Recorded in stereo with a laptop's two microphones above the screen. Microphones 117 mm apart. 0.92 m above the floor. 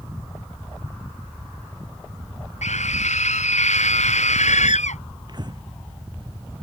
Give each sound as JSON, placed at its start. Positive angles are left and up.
{"t": 2.6, "sound": "a scream", "side_deg": 85}
{"t": 5.3, "sound": "breathing", "side_deg": -40}